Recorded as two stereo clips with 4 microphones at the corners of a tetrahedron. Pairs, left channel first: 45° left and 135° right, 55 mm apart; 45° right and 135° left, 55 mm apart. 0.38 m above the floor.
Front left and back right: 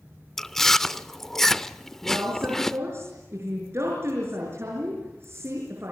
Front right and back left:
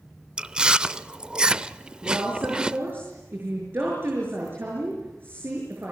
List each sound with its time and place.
0.4 s chewing: 115° left, 0.5 m
2.0 s a woman speaking: 175° right, 6.5 m